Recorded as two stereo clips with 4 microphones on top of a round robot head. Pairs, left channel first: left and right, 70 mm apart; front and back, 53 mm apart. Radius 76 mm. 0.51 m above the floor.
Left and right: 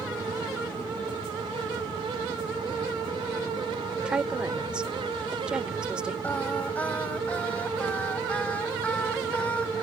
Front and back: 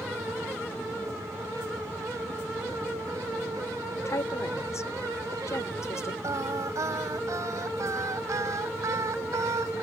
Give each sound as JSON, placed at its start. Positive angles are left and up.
{"t": 4.0, "sound": "a woman speaking", "azimuth_deg": -15}
{"t": 6.2, "sound": "singing", "azimuth_deg": 165}